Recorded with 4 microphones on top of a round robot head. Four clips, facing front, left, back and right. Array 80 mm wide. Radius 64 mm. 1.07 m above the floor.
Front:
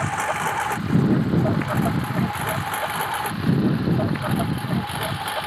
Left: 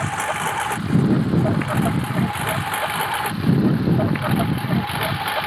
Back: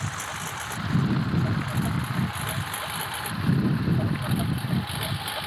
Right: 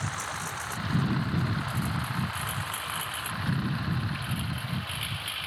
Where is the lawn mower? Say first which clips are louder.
Left 11 dB, front 10 dB; 45° left; by 5.5 s 70° left.